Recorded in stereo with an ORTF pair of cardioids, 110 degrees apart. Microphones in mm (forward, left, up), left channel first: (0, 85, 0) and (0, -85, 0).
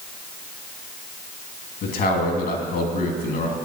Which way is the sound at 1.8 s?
65° left.